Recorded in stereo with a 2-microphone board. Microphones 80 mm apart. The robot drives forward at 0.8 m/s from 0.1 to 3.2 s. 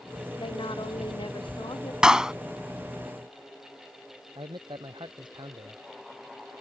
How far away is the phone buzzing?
I don't hear a phone buzzing.